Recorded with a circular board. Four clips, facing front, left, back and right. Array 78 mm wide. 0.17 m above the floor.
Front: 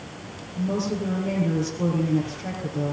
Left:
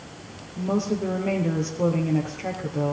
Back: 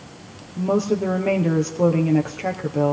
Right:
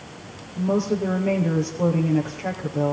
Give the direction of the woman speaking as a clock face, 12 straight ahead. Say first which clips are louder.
Right 3 dB, back 6 dB; 6 o'clock.